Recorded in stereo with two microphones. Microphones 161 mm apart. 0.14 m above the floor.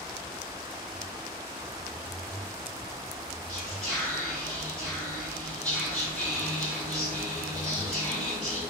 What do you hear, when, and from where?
3.5 s whispering: 15° left (ahead or behind), 1.2 m